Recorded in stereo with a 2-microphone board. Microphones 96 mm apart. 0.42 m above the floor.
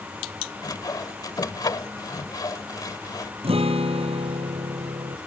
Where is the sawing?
40° left (ahead or behind).